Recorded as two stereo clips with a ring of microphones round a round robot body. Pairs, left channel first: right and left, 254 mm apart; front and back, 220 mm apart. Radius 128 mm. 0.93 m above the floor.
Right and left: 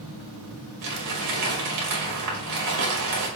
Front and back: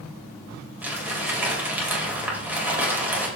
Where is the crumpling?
100° left, 5 m.